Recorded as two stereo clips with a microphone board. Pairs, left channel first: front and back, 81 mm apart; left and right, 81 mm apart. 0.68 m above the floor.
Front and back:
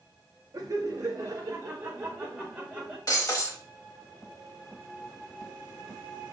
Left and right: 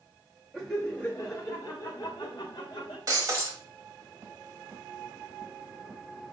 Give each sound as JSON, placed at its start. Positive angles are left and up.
{"t": 0.5, "sound": "laughter", "azimuth_deg": 180, "distance_m": 0.7}
{"t": 3.1, "sound": "breaking glass", "azimuth_deg": -45, "distance_m": 1.1}